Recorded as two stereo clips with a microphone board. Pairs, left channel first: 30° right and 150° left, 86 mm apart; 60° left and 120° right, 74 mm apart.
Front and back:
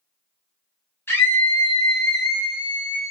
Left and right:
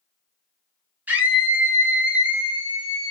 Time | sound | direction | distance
1.1 | a scream | 75° right | 1.3 m